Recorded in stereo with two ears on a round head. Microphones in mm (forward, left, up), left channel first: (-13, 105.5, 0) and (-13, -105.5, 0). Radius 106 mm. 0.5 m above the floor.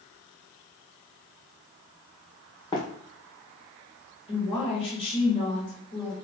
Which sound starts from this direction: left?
A woman speaking, at 4.3 s.